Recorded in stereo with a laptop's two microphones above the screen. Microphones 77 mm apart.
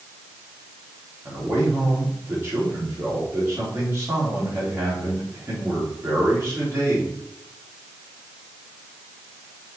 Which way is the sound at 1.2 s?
35° right (ahead or behind).